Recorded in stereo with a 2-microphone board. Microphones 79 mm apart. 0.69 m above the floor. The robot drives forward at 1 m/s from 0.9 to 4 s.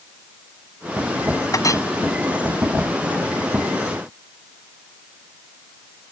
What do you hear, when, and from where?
1.5 s a clink: 50° left (ahead or behind)